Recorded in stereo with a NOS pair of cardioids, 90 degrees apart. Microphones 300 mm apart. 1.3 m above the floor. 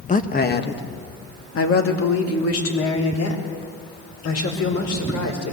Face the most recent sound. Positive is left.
turn(degrees=60)